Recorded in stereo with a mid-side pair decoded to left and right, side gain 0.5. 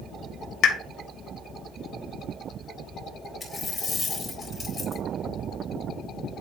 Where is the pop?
60° left, 1.3 m.